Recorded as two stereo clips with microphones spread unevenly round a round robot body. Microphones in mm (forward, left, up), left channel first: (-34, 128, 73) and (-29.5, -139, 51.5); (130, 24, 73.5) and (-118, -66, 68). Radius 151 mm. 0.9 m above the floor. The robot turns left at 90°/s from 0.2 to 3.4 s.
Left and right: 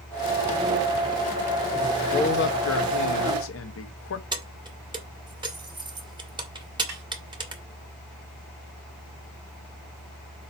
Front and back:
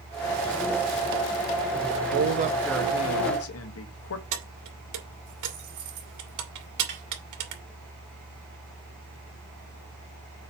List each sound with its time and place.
2.1 s a man speaking: 165° left, 1.3 m; by 4.2 s 50° left, 1.3 m
4.3 s keys jangling: 165° right, 1.9 m
6.9 s a snare drum: 110° right, 3 m